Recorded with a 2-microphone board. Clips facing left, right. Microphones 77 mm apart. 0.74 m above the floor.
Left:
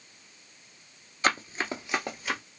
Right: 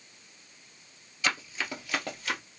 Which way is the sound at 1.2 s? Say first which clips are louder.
Left 4 dB; 40° left (ahead or behind).